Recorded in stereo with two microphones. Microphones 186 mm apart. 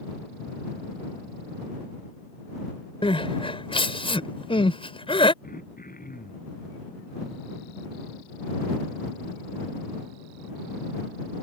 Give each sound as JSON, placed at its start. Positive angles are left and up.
{"t": 3.0, "sound": "crying", "side_deg": 30}
{"t": 5.4, "sound": "throat clearing", "side_deg": 50}